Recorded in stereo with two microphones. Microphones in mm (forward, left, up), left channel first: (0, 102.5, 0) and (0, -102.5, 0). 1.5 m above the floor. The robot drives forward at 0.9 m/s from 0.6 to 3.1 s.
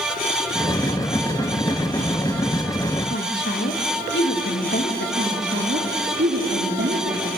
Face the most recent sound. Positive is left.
turn(degrees=-65)  # may be behind; listen again after turning